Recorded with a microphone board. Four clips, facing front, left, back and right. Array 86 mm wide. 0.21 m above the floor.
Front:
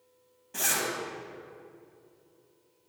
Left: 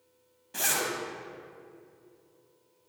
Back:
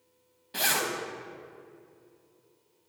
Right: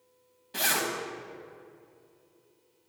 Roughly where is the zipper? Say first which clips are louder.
Right 2 dB, back 2 dB; behind right.